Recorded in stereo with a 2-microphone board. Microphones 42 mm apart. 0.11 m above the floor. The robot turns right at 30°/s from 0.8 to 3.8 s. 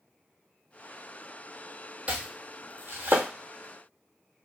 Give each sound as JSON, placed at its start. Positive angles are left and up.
{"t": 2.1, "sound": "chopping", "side_deg": -35, "distance_m": 0.8}